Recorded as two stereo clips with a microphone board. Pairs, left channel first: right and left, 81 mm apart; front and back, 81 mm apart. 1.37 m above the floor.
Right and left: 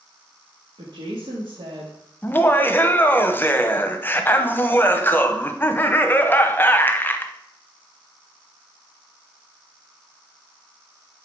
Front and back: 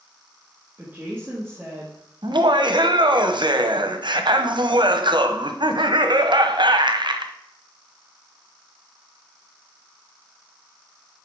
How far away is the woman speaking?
About 1.8 m.